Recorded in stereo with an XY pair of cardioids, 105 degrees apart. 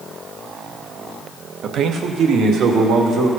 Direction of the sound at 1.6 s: 60° right.